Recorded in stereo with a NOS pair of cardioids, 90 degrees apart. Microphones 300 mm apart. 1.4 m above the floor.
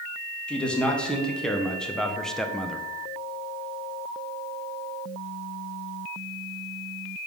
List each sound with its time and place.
0.5 s a man speaking: 5° left, 1.9 m; by 2.9 s straight ahead, 0.7 m